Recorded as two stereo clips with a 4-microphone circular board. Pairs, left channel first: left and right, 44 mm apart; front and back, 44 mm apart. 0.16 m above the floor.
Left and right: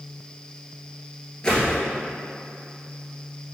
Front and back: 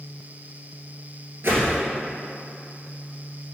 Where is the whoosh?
160° left, 1.3 m.